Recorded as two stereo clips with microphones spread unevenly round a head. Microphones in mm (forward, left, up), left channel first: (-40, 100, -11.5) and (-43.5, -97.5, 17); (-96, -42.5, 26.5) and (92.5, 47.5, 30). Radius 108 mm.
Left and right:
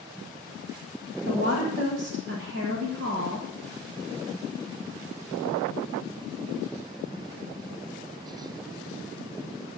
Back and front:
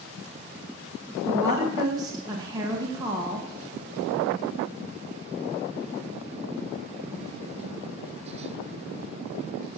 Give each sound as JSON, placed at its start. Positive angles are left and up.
{"t": 1.2, "sound": "a woman speaking", "azimuth_deg": -50, "distance_m": 1.8}